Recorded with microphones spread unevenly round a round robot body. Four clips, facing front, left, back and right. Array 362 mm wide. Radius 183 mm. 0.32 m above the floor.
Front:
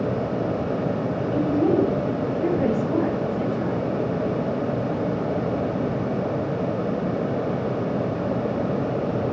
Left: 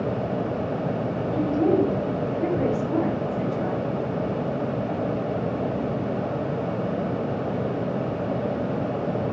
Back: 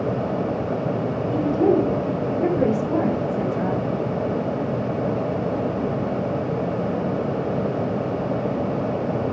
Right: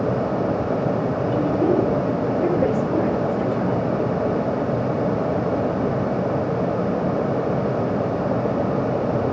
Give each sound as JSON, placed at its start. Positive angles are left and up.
{"t": 1.3, "sound": "a woman speaking", "azimuth_deg": -165, "distance_m": 4.5}